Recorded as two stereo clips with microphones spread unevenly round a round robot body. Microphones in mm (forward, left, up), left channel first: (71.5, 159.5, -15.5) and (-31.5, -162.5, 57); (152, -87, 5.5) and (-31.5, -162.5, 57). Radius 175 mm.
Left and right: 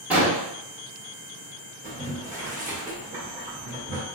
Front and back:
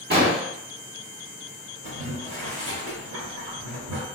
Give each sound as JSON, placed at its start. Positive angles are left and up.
{"t": 0.1, "sound": "an explosion", "azimuth_deg": 160, "distance_m": 1.3}
{"t": 1.8, "sound": "boiling", "azimuth_deg": 180, "distance_m": 2.0}